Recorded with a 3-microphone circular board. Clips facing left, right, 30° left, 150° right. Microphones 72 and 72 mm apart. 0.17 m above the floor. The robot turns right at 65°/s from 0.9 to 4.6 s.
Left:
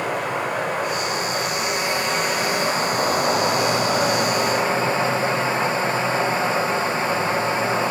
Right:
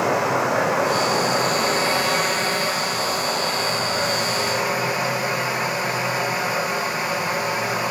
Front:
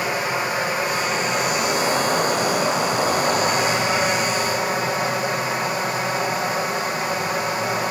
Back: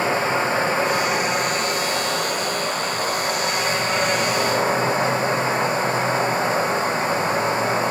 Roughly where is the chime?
No chime in this recording.